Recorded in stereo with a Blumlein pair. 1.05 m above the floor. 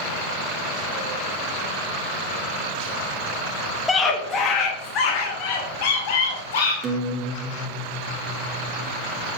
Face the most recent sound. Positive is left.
turn(degrees=-25)